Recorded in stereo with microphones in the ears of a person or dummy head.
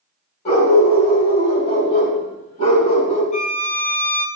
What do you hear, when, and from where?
0.5 s a dog barking: 45° left (ahead or behind), 3.5 m
3.3 s a violin: 40° left (ahead or behind), 0.7 m